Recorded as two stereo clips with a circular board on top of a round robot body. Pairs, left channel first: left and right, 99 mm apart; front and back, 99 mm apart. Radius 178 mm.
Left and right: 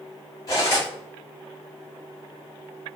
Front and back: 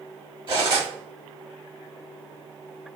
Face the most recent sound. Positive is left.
turn(degrees=145)